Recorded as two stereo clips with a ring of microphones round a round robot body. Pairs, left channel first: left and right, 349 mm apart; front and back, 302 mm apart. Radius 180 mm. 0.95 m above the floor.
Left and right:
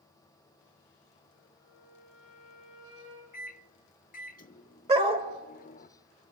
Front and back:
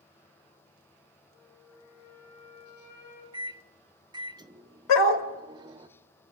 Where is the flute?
35° right, 7 m.